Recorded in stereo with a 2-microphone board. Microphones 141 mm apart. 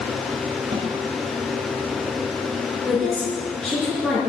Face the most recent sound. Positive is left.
turn(degrees=0)  # may be behind; listen again after turning